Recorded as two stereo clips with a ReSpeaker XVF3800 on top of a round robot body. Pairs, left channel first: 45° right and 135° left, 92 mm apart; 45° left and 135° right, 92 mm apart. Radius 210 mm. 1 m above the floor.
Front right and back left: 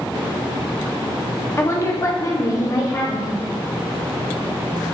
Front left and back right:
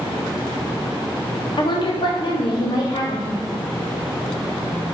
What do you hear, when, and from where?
1.6 s a woman speaking: 15° left, 1.5 m; by 3.5 s 5° left, 3 m